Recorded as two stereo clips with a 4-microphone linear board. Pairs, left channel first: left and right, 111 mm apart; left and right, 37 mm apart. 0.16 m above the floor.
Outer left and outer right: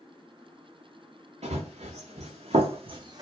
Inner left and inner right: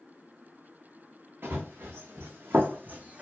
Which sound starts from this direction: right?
Running footsteps, at 1.4 s.